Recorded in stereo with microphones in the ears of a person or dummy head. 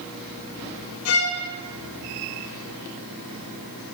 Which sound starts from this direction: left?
A violin, at 1.1 s.